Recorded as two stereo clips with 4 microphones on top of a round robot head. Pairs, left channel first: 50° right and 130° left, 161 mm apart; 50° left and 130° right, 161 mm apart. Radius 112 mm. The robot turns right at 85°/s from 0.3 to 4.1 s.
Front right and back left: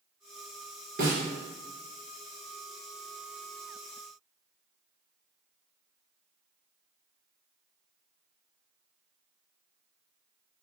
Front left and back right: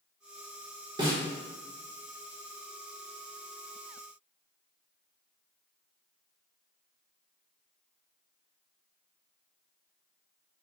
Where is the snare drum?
165° left, 1.8 m; by 1.2 s 175° right, 1.8 m.